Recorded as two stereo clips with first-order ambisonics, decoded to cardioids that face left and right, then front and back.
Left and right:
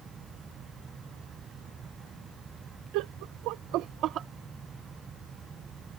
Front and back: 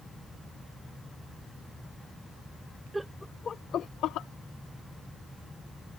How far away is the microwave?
No microwave in this recording.